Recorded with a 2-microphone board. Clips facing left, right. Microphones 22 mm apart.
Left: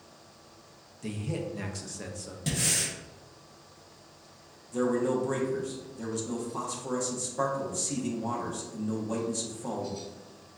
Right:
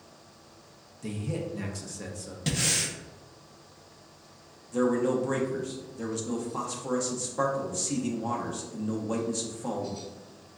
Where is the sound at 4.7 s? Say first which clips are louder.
Right 2 dB; 10° right (ahead or behind), 0.8 m.